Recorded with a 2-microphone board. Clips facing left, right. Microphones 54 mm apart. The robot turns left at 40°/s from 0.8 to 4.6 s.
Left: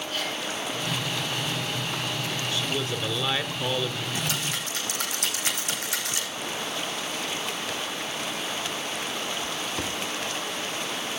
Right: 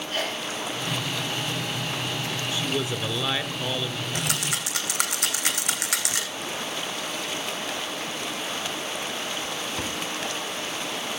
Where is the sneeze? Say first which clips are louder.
Right 3 dB; 20° right (ahead or behind), 4.5 m.